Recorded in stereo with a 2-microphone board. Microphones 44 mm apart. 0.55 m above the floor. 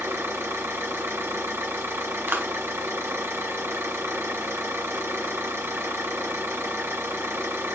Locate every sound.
0.0 s an engine running: 70° right (ahead or behind), 1.8 m
2.3 s a clap: 50° right (ahead or behind), 0.8 m